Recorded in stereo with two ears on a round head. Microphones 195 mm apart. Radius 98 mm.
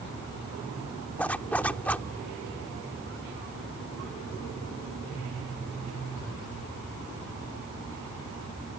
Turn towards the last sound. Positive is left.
turn(degrees=5)  # may be behind; listen again after turning